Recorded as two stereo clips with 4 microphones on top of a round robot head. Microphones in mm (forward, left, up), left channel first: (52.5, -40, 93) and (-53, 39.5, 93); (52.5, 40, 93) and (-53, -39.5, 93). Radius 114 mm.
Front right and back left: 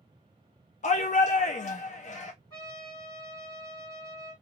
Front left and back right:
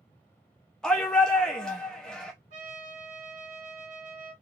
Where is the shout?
45° right, 0.6 m.